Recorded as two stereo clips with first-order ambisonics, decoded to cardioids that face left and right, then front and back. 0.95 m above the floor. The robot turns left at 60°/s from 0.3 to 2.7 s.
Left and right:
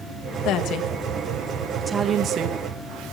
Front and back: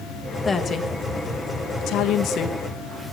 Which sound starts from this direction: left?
A woman speaking, at 0.5 s.